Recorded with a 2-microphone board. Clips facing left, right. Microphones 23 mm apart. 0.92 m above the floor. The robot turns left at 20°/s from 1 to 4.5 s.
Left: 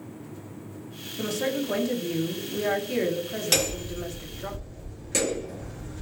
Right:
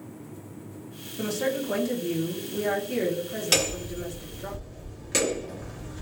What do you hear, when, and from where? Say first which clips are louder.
1.2 s a woman speaking: even; straight behind, 1.0 m; by 4.5 s 115° left, 1.0 m
3.5 s hammering: right 1 dB; 10° right (ahead or behind), 1.5 m; by 6.0 s 30° right (ahead or behind), 1.5 m